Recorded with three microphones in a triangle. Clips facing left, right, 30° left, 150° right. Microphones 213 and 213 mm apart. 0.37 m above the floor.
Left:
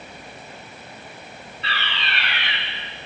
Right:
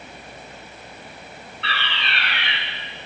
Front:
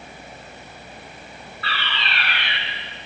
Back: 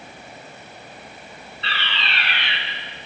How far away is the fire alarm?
About 6.5 m.